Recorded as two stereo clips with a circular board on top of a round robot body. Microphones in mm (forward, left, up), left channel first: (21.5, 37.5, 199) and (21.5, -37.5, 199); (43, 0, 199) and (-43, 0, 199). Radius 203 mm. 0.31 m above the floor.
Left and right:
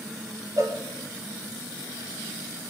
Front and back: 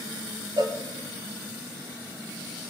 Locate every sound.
0.6 s a cowbell: 140° right, 0.8 m